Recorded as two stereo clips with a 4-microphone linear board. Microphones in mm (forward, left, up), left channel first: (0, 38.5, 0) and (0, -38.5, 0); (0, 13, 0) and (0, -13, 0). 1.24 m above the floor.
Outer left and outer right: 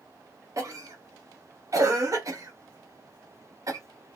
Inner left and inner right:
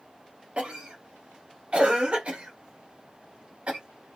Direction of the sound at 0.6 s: 45° right (ahead or behind).